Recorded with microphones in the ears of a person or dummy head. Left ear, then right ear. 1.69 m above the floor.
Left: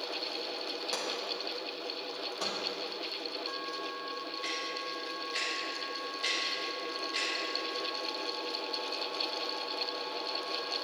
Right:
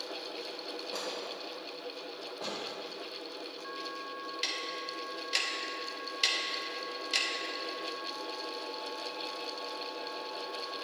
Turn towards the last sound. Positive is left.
turn(degrees=-65)  # may be behind; listen again after turning